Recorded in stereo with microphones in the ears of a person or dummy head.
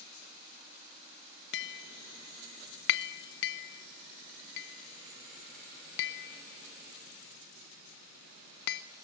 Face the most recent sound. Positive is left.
turn(degrees=65)  # may be behind; listen again after turning